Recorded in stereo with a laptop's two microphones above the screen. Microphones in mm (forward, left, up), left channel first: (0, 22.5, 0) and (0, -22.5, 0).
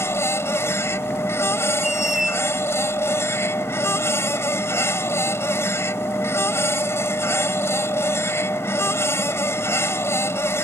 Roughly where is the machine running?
Left.